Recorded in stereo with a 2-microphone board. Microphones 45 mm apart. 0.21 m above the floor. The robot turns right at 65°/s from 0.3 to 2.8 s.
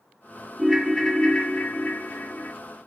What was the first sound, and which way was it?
A ringtone, 10° right.